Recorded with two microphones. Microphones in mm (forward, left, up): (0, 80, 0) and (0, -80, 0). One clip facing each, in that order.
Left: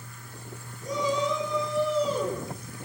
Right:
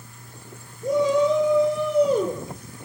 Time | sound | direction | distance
0.8 | a shout | 60° right (ahead or behind) | 3.5 m